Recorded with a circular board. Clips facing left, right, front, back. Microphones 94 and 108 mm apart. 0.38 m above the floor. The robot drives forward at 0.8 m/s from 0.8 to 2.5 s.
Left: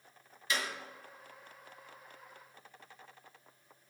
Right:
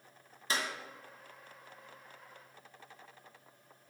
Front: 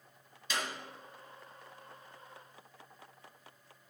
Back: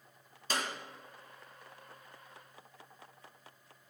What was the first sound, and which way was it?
A clap, 135° right.